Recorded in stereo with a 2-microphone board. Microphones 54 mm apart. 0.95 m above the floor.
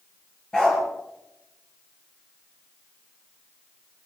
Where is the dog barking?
15° left (ahead or behind), 5 m.